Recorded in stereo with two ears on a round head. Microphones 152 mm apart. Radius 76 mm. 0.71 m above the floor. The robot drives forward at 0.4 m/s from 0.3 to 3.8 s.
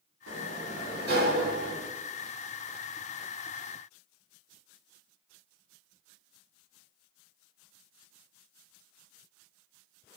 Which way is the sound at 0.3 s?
80° right.